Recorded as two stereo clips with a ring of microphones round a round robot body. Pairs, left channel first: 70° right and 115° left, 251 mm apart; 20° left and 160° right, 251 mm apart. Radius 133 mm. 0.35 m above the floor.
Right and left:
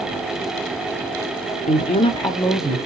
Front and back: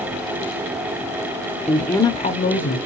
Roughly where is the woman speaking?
Right.